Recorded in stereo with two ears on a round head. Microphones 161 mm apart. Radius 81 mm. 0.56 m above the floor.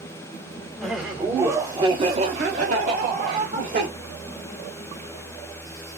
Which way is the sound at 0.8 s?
Centre (ahead or behind).